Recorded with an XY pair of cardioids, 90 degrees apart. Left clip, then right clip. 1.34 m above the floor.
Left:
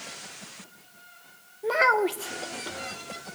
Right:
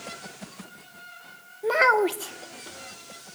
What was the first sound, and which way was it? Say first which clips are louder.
A child speaking: right 2 dB; 15° right.